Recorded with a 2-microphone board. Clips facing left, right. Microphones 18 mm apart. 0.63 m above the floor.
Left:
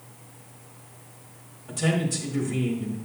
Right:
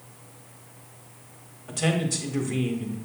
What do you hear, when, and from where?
1.7 s a man speaking: 35° right (ahead or behind), 1.5 m